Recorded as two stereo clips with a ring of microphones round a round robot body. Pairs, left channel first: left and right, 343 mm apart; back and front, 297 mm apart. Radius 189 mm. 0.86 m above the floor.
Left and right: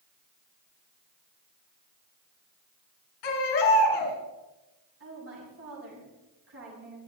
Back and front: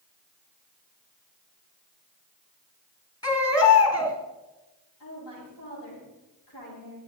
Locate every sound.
3.2 s a baby crying: 100° left, 3.5 m
5.0 s a woman speaking: 145° right, 7 m